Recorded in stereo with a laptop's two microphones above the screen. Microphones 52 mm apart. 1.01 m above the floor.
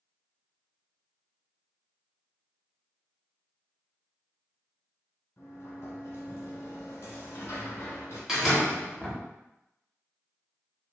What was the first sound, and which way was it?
A sliding door, 55° left (ahead or behind).